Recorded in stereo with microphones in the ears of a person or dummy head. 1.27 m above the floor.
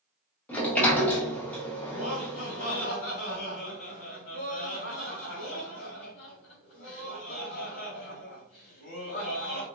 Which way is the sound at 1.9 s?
40° left (ahead or behind).